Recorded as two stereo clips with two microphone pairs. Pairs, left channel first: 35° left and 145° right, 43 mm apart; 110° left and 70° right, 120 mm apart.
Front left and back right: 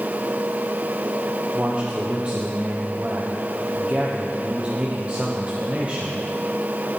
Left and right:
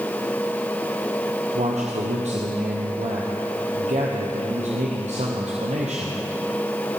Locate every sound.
1.5 s a man speaking: 85° right, 1.1 m